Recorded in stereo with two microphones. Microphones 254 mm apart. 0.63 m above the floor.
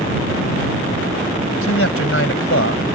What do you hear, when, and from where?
1.6 s a man speaking: 60° left (ahead or behind)